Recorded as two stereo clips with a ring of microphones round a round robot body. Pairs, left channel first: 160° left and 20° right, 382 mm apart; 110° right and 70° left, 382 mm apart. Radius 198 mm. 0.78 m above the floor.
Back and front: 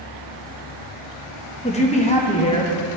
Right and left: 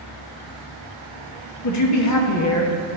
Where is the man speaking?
135° right, 1.2 m.